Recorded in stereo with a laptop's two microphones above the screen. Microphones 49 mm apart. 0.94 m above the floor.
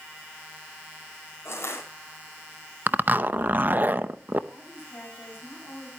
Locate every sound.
1.4 s crushing: 65° left (ahead or behind), 5 m
2.9 s a zipper: 40° right (ahead or behind), 0.6 m
4.5 s a woman speaking: 50° left (ahead or behind), 7 m